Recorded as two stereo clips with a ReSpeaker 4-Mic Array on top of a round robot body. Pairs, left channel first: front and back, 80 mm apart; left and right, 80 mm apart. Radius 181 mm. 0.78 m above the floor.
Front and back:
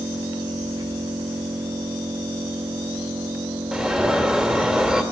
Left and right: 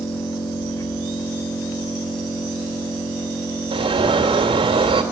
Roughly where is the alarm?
Right.